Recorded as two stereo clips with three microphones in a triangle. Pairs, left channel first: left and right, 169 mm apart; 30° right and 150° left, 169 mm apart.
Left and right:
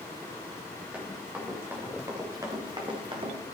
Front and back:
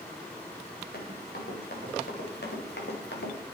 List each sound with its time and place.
0.9 s running footsteps: 5° right, 3.5 m; by 3.4 s 35° right, 2.5 m